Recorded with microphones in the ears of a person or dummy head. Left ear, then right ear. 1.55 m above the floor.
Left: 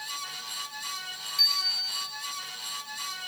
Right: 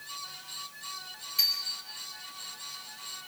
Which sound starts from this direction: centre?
A bicycle bell, at 1.4 s.